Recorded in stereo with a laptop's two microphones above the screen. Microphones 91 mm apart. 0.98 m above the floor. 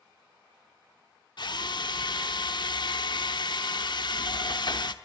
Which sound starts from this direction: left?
A drill, at 1.4 s.